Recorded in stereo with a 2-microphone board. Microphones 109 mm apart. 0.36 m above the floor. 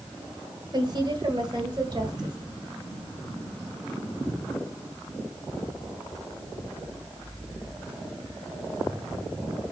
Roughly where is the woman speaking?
Right.